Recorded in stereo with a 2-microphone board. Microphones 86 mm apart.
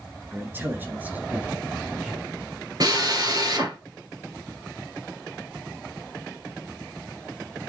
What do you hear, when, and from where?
0.3 s a man speaking: 25° right (ahead or behind), 1.6 m; by 2.3 s 15° right (ahead or behind), 2.5 m
2.8 s a drill: 50° right (ahead or behind), 2.5 m